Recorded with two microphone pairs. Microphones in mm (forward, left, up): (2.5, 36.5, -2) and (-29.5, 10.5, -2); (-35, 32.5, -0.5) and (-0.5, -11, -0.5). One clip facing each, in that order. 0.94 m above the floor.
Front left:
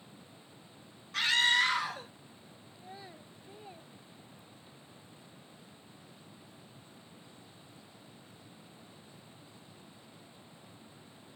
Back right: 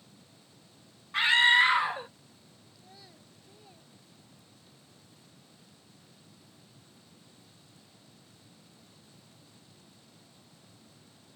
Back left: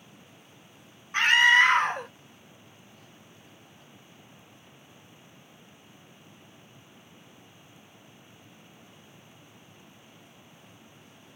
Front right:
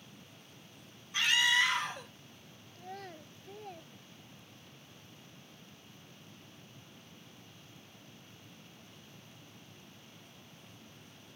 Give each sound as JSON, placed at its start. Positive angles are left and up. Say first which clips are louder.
{"t": 1.1, "sound": "a scream", "louder": "back right 6 dB, back left 9 dB", "azimuth_deg": 155}
{"t": 2.8, "sound": "a child speaking", "louder": "front left 7 dB, front right 8 dB", "azimuth_deg": -25}